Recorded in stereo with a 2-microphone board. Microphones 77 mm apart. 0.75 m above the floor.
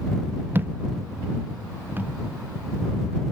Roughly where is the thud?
Right.